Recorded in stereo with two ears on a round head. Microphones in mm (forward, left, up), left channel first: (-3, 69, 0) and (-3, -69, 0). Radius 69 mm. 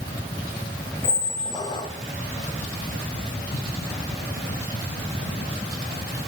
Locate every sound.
1.0 s a squeak: 25° left (ahead or behind), 0.7 m